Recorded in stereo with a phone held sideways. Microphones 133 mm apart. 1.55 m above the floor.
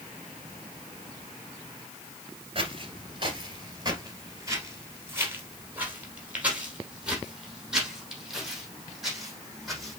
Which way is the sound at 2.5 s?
40° right (ahead or behind).